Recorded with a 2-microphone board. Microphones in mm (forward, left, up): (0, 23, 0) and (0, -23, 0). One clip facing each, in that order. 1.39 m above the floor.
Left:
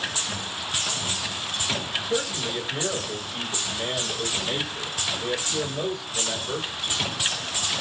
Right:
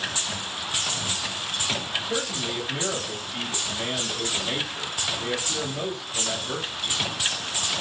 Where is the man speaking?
65° right (ahead or behind), 2.5 m.